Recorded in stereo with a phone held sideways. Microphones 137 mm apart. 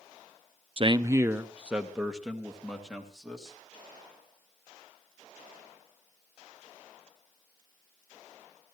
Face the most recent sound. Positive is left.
turn(degrees=0)  # may be behind; listen again after turning